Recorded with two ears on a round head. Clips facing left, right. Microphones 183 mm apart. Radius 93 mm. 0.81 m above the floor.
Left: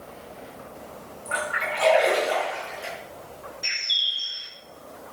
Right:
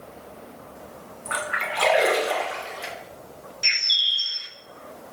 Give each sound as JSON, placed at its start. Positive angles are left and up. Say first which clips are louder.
{"t": 1.2, "sound": "a splash", "louder": "left 1 dB", "side_deg": -75, "distance_m": 2.5}
{"t": 3.6, "sound": "a bird", "louder": "right 2 dB", "side_deg": -30, "distance_m": 0.9}